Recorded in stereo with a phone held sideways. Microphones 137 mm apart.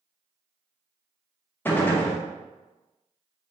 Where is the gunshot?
15° left (ahead or behind), 0.6 m.